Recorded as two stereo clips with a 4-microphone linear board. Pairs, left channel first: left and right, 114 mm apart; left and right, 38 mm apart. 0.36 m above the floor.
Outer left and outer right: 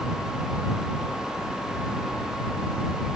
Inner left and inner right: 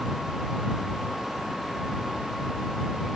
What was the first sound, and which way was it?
Only background noise.